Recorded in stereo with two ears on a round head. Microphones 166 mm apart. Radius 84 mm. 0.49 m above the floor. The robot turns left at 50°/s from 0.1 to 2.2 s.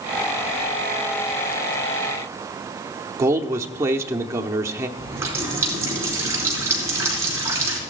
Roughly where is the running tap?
Centre.